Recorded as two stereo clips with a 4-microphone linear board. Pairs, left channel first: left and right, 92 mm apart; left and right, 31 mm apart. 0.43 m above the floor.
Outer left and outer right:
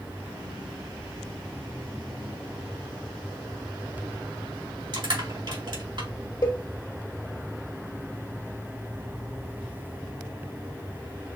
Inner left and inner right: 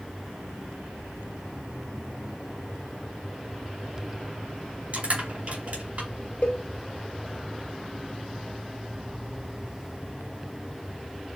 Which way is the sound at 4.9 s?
60° right (ahead or behind).